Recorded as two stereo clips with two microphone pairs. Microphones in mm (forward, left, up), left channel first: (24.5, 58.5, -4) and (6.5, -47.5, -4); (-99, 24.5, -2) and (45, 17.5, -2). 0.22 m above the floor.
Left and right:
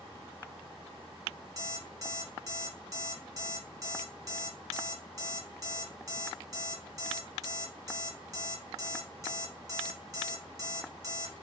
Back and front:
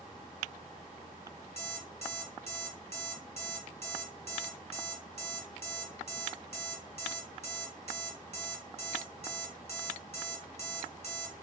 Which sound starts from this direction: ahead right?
An alarm clock, at 1.6 s.